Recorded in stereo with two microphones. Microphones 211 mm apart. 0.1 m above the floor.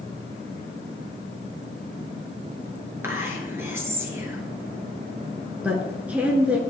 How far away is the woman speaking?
About 1.2 m.